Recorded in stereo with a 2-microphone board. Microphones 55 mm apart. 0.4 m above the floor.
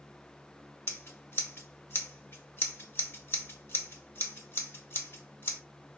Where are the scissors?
45° left (ahead or behind), 1.0 m.